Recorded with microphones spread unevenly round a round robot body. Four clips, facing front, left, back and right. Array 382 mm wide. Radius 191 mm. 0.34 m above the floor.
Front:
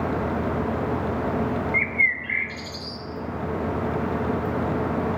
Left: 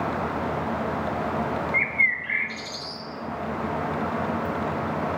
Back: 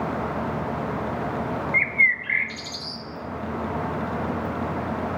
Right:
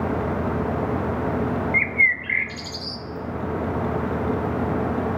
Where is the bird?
130° right, 0.9 m.